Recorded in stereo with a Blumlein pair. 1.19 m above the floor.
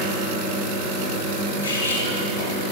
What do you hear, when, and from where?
0.0 s running water: 20° left, 6.5 m
1.6 s cutlery clinking: 60° left, 3.5 m